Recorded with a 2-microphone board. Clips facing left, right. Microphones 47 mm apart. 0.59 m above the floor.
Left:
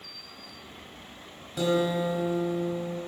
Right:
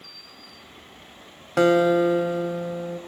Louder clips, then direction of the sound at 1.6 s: Right 8 dB; 70° right (ahead or behind).